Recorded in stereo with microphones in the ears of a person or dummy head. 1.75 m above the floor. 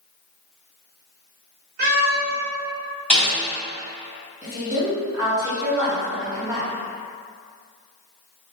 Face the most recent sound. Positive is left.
turn(degrees=-15)  # may be behind; listen again after turning